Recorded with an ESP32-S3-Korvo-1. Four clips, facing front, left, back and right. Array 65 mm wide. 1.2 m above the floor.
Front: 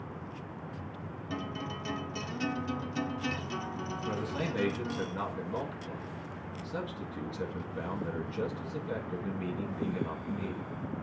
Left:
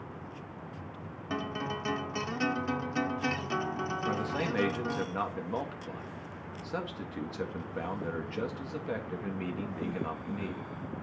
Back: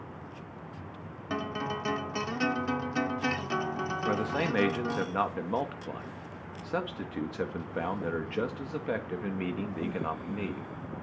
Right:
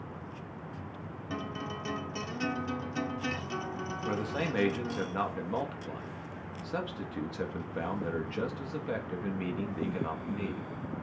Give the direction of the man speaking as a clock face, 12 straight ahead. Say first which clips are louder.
Right 1 dB, back 5 dB; 6 o'clock.